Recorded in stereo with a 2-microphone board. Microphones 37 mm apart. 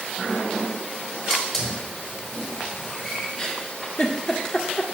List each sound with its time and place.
1.3 s a hiss: 10° left (ahead or behind), 7 m
3.4 s a giggle: 20° left (ahead or behind), 1.6 m